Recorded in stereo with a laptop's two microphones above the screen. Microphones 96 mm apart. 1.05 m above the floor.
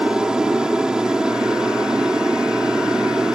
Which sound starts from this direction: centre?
An aircraft, at 0.0 s.